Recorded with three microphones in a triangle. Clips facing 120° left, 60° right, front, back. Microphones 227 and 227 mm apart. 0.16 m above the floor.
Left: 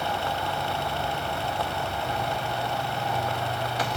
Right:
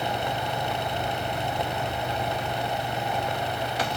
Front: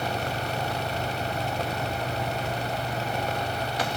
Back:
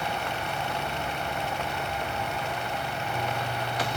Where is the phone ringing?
I don't hear a phone ringing.